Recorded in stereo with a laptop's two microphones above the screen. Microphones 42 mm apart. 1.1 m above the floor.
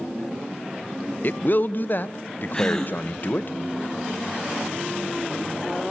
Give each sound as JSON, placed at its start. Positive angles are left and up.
{"t": 1.2, "sound": "a man speaking", "side_deg": 45, "distance_m": 0.6}
{"t": 2.5, "sound": "a gasp", "side_deg": 15, "distance_m": 2.5}